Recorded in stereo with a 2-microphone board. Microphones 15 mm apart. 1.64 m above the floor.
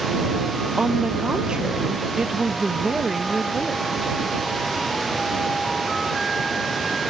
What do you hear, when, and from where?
0.8 s a woman speaking: 55° right (ahead or behind); by 3.9 s 20° right (ahead or behind)